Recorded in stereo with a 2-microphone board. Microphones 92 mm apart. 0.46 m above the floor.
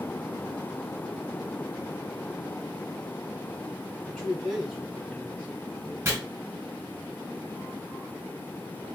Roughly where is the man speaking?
Centre.